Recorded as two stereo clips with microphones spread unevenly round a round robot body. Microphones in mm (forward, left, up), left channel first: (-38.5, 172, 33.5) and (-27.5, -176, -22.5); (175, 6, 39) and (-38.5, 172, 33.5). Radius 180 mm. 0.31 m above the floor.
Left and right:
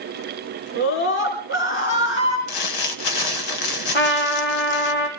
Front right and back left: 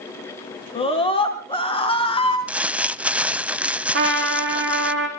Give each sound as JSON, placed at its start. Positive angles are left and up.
{"t": 0.8, "sound": "a scream", "azimuth_deg": 30, "distance_m": 3.5}
{"t": 2.5, "sound": "crumpling", "azimuth_deg": 55, "distance_m": 0.9}
{"t": 3.9, "sound": "a trumpet", "azimuth_deg": 90, "distance_m": 5.0}